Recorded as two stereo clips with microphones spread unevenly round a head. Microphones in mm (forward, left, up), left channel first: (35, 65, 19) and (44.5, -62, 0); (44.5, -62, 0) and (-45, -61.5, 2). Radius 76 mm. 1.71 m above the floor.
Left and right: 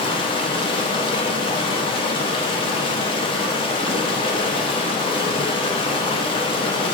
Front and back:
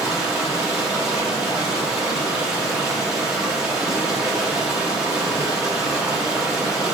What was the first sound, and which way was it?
Running water, 100° left.